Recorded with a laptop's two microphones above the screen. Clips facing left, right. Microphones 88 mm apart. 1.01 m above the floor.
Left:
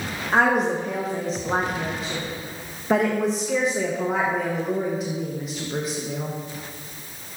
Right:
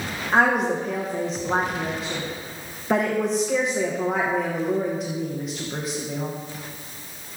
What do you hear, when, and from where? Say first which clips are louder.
0.3 s a woman speaking: even; centre (ahead or behind), 0.7 m